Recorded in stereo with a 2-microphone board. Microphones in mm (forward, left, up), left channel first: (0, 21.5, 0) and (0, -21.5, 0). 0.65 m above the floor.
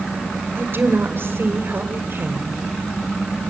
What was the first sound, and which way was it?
A woman speaking, 55° right (ahead or behind).